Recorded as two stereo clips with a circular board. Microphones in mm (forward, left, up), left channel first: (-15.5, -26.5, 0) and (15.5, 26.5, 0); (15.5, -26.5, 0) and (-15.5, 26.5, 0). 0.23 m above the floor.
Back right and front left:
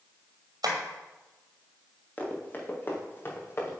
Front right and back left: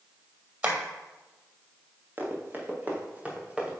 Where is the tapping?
60° left, 1.7 m.